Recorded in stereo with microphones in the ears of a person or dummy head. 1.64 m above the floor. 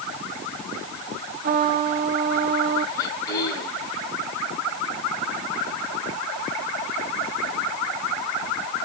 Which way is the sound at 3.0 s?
15° left (ahead or behind).